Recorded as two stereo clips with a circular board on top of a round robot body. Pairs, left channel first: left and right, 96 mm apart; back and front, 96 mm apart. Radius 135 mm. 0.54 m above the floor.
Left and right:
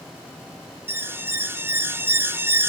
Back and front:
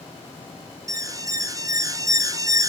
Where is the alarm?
35° right, 1.8 m.